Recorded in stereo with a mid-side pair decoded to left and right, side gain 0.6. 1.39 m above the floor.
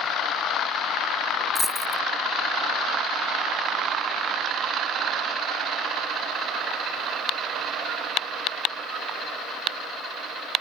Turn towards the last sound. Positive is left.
turn(degrees=5)